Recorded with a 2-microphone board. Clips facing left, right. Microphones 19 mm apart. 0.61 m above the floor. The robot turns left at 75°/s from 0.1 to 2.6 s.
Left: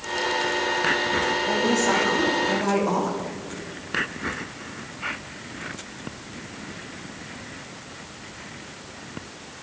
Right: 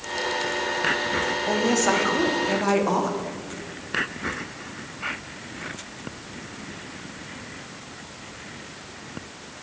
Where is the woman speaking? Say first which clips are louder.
Right 2 dB; 60° right, 0.6 m; by 3.2 s 145° right, 0.6 m.